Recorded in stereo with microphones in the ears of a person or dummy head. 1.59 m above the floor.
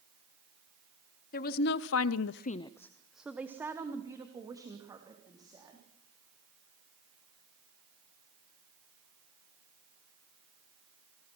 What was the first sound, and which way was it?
A woman speaking, 50° left (ahead or behind).